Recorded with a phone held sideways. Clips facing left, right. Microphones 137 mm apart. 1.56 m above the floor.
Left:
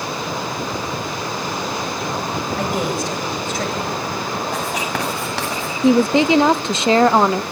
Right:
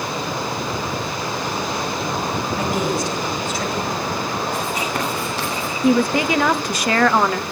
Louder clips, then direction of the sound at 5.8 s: Left 3 dB; 25° left (ahead or behind).